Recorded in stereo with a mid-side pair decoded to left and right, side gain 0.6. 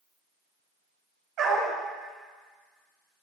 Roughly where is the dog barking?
Right.